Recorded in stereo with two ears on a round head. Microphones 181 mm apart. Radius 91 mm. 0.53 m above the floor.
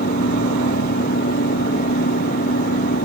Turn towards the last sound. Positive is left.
turn(degrees=45)  # may be behind; listen again after turning